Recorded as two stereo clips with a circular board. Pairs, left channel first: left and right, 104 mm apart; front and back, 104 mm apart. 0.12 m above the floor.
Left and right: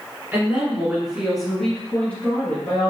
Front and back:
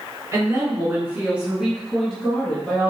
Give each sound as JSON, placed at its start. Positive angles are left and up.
{"t": 0.3, "sound": "a woman speaking", "azimuth_deg": -145, "distance_m": 1.5}